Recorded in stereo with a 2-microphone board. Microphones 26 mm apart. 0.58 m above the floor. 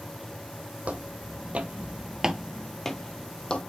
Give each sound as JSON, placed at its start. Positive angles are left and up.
{"t": 0.8, "sound": "footsteps", "side_deg": -60, "distance_m": 1.2}